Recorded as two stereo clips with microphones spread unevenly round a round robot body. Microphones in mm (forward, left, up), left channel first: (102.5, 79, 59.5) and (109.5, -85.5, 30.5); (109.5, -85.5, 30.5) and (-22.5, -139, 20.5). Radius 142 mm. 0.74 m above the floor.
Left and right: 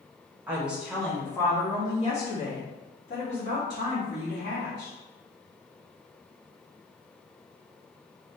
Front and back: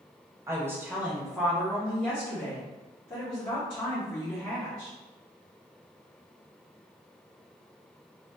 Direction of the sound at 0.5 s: 125° right.